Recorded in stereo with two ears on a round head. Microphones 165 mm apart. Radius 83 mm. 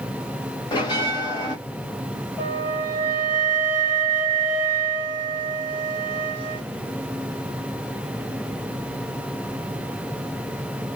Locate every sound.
0.7 s a bell: 25° left (ahead or behind), 1.9 m
2.4 s a flute: 10° right (ahead or behind), 2.5 m